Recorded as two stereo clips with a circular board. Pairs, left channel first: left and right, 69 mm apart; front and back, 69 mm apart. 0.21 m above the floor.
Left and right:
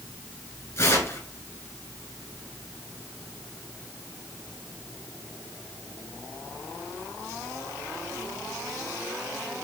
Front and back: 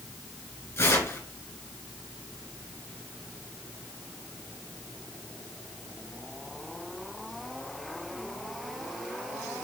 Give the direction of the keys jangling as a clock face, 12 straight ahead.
I don't hear keys jangling.